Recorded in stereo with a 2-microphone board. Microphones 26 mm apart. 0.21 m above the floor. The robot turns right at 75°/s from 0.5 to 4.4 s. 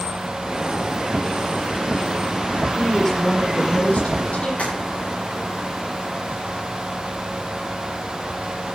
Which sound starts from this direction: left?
Tapping, at 4.6 s.